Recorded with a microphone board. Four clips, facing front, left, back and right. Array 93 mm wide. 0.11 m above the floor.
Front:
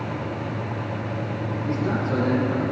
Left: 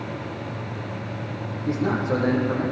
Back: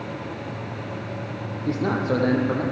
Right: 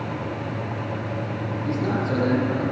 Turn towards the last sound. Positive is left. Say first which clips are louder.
# left 2 dB, back 3 dB
turn(degrees=170)